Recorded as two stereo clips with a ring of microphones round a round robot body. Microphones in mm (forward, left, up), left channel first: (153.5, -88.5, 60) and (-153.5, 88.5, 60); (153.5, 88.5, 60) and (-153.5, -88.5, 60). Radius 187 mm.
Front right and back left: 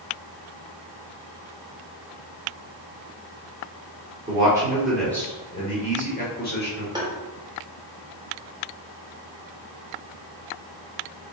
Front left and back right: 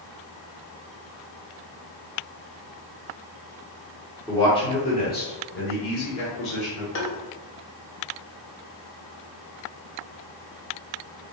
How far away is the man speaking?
About 1.2 m.